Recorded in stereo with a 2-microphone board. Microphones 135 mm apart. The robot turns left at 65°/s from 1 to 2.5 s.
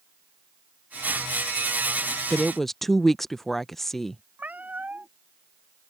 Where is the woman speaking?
5° right (ahead or behind); by 4.2 s centre (ahead or behind).